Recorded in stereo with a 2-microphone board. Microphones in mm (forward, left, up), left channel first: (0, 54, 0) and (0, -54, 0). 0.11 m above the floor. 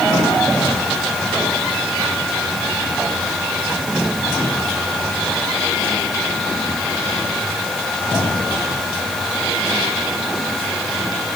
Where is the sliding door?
No sliding door in this recording.